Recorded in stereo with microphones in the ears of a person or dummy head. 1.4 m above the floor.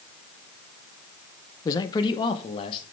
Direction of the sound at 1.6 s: 20° left (ahead or behind).